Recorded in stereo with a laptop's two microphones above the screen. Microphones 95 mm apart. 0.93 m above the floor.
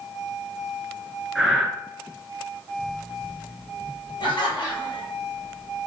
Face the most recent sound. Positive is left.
turn(degrees=55)  # may be behind; listen again after turning